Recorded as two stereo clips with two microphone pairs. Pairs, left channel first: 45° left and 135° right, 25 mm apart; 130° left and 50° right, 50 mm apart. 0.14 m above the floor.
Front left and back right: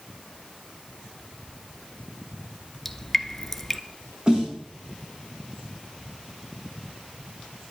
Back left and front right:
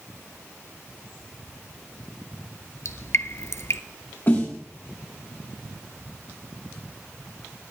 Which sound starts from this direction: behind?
A snare drum, at 4.3 s.